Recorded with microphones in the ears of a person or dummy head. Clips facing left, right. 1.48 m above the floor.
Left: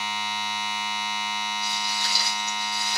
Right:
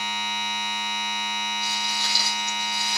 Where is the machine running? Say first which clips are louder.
Even; 40° right (ahead or behind), 3.5 m.